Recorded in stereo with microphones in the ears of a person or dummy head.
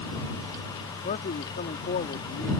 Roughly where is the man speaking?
Left.